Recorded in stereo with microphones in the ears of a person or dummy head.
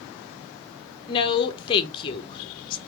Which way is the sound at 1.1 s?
25° left (ahead or behind).